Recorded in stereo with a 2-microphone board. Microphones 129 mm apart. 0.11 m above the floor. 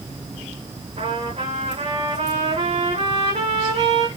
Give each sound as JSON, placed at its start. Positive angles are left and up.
{"t": 1.0, "sound": "a trumpet", "side_deg": -55, "distance_m": 7.0}